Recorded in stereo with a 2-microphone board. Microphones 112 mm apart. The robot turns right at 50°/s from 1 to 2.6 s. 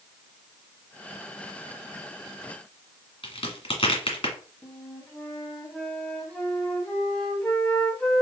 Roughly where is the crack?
Left.